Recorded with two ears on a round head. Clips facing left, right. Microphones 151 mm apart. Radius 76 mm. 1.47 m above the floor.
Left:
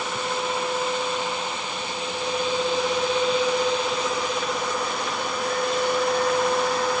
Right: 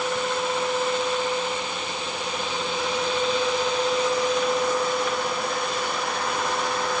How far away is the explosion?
No explosion in this recording.